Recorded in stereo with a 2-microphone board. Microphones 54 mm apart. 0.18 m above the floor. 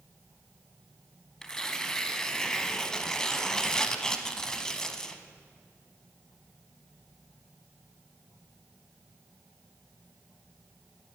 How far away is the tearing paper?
About 0.8 m.